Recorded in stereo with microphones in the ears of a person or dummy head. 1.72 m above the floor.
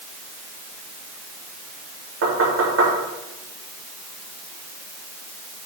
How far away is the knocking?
About 3.5 m.